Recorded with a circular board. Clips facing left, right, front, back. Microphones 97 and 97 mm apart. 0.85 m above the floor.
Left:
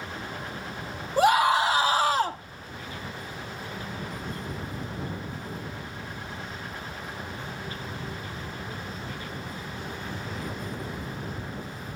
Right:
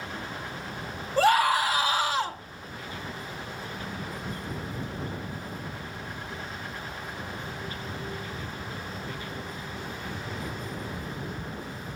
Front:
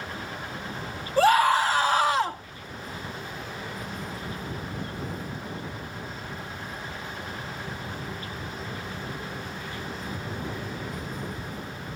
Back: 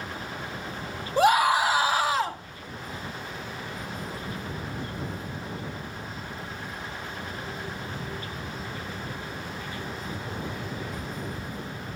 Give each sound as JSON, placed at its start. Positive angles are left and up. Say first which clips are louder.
{"t": 1.2, "sound": "a scream", "louder": "left 1 dB, front 1 dB", "azimuth_deg": 145, "distance_m": 1.0}